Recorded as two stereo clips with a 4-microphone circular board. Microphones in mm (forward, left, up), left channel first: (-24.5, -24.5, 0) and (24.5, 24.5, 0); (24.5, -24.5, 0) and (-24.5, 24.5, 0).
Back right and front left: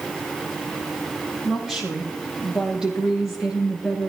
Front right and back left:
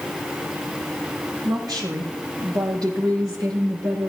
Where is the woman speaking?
130° left, 6.5 m; by 4.1 s 120° left, 5.5 m.